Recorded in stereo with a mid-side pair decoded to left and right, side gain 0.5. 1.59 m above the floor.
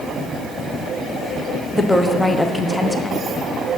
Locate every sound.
1.7 s a woman speaking: 10° left, 0.8 m